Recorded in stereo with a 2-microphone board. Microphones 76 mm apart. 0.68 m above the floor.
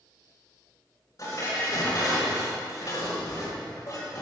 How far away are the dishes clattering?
About 2 m.